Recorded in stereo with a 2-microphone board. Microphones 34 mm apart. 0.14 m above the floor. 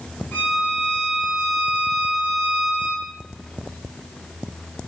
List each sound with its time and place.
0.3 s a violin: 70° left (ahead or behind), 4 m